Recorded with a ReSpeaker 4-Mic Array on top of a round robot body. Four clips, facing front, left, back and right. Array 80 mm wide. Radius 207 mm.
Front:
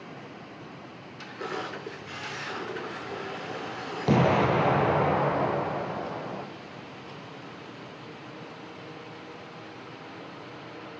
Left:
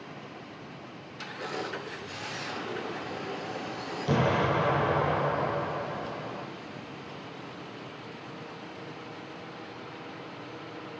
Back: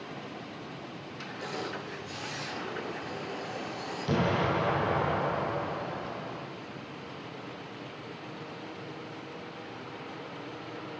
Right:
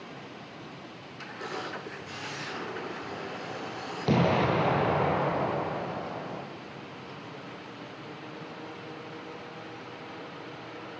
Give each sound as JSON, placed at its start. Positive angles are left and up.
{"t": 1.4, "sound": "a camera shutter", "azimuth_deg": -15, "distance_m": 8.5}
{"t": 4.1, "sound": "an explosion", "azimuth_deg": -25, "distance_m": 2.5}